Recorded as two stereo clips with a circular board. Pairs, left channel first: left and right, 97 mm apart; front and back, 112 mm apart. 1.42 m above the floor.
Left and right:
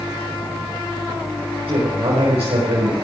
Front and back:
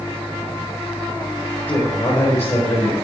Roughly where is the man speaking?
Right.